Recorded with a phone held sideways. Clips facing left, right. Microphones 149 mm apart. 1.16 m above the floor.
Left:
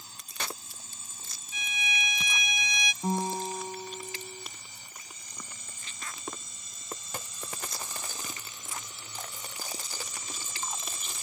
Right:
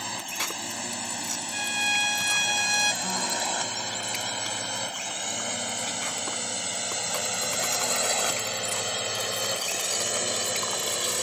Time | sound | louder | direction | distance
0.0 | a drone | right 7 dB | 80° right | ?
1.5 | a violin | right 4 dB | 65° right (ahead or behind) | ?
3.0 | a guitar | left 1 dB | 30° left (ahead or behind) | ?